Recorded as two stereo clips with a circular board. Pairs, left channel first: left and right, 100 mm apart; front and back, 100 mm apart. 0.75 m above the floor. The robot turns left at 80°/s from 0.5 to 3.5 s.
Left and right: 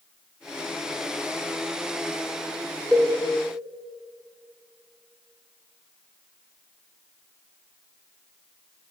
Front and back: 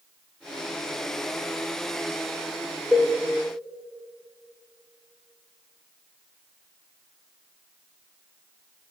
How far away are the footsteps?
I don't hear footsteps.